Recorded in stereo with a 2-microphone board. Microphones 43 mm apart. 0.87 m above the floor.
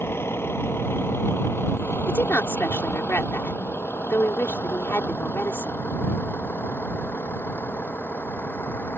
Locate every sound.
0.0 s a vehicle: 75° left (ahead or behind); by 9.0 s 60° left (ahead or behind)
2.1 s a woman speaking: 75° left (ahead or behind)